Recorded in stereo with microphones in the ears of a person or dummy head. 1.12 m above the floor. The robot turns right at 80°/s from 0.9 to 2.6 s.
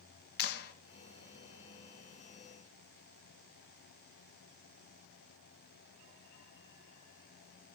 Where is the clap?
55° left (ahead or behind), 1.2 m.